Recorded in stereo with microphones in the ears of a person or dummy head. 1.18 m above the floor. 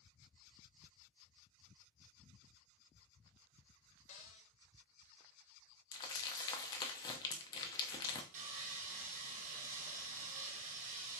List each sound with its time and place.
4.1 s a cupboard door: 35° left (ahead or behind), 0.6 m
5.9 s crumpling: 25° left (ahead or behind), 0.7 m
8.3 s sawing: 45° right (ahead or behind), 1.5 m